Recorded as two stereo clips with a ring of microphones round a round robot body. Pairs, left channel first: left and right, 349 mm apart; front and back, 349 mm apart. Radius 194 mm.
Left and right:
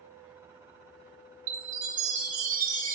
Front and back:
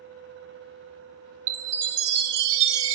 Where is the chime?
160° right, 0.6 m.